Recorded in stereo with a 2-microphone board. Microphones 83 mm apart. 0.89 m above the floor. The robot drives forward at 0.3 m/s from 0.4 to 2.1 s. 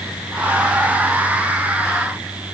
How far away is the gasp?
No gasp in this recording.